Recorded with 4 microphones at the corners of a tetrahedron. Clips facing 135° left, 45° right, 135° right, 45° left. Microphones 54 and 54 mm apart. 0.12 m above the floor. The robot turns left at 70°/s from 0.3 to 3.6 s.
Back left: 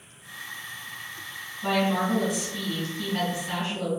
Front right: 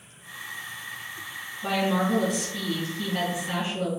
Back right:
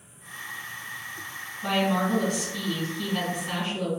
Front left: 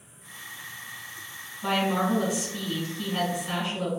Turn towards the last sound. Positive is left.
turn(degrees=-30)